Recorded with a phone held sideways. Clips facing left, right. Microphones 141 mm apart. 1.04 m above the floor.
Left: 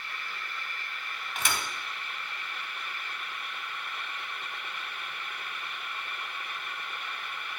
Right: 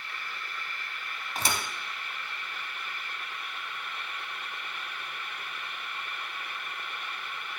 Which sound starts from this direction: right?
A thud, at 1.4 s.